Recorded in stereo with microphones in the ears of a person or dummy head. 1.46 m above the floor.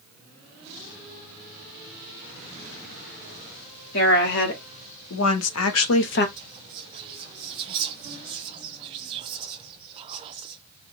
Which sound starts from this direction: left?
A woman speaking, at 3.9 s.